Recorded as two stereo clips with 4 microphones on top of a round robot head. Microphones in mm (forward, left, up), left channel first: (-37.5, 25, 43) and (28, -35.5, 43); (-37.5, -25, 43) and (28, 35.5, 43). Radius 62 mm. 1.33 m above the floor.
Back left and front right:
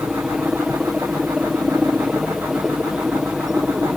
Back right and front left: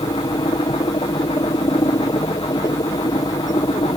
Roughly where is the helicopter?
Behind right.